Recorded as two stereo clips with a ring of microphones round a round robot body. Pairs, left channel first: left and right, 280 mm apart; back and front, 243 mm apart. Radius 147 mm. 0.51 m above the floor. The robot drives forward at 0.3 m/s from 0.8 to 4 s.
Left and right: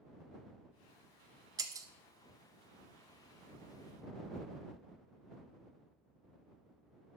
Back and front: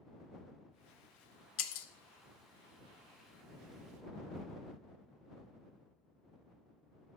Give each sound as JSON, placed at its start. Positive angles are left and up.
{"t": 1.6, "sound": "breaking glass", "azimuth_deg": -165, "distance_m": 0.6}